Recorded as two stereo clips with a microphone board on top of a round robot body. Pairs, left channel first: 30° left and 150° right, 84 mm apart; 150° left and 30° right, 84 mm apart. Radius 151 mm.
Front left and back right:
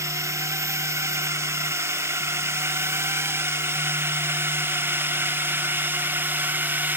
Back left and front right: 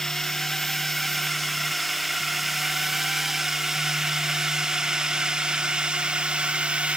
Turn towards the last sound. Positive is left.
turn(degrees=-100)